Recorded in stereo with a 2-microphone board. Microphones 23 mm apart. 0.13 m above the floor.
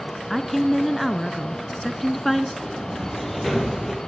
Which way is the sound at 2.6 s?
5° left (ahead or behind).